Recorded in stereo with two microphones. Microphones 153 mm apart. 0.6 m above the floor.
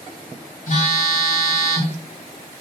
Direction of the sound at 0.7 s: 60° left (ahead or behind).